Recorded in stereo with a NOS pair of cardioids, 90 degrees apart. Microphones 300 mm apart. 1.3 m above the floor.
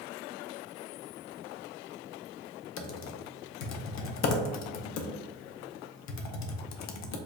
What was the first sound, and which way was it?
Typing on a keyboard, 60° left.